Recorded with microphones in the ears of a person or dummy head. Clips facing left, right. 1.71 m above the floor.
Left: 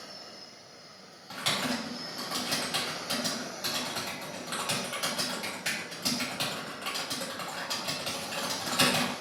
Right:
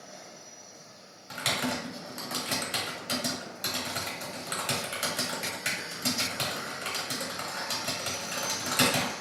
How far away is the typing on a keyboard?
About 0.6 m.